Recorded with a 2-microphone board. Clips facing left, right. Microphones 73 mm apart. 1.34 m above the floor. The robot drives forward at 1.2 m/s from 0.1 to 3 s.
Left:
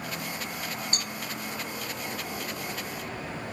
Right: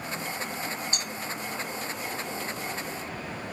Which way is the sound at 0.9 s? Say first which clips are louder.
Even; 45° left (ahead or behind).